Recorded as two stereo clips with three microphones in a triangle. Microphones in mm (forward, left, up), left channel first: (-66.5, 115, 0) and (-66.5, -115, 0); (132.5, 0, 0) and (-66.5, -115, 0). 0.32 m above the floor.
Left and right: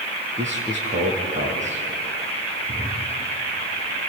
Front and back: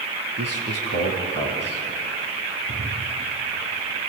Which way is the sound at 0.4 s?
150° right.